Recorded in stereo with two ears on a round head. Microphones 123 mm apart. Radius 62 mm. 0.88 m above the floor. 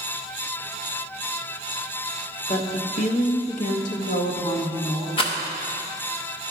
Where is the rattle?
40° left (ahead or behind), 0.9 m.